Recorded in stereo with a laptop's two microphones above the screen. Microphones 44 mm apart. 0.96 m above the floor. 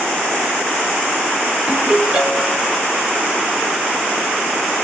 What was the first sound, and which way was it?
A ringtone, 15° right (ahead or behind).